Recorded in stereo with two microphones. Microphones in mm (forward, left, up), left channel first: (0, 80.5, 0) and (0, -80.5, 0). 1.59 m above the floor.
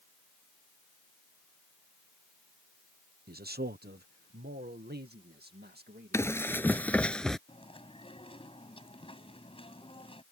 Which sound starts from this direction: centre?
Running footsteps, at 6.1 s.